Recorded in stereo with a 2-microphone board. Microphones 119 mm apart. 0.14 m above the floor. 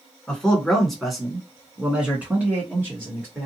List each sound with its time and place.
0.3 s a man speaking: 5° left (ahead or behind), 1.4 m; by 3.5 s 20° right (ahead or behind), 1.8 m